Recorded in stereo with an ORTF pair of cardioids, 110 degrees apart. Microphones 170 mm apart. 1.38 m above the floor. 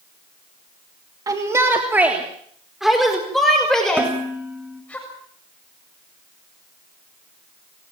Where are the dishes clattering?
10° right, 4.5 m.